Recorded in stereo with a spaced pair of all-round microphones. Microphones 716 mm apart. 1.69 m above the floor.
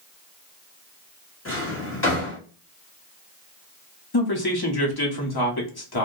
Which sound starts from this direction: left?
A man speaking, at 4.1 s.